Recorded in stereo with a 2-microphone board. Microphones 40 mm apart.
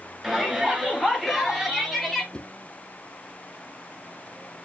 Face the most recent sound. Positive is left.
turn(degrees=25)  # may be behind; listen again after turning